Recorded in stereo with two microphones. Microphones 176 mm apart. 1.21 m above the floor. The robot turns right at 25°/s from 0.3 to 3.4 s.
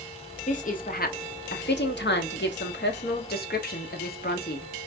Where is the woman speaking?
45° left, 0.8 m; by 4.7 s 115° left, 0.8 m.